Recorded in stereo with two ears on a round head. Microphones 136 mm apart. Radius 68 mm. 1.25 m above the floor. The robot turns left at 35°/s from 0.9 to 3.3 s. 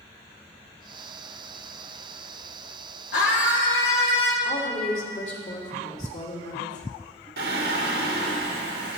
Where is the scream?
85° left, 4 m; by 4.3 s 90° left, 4 m.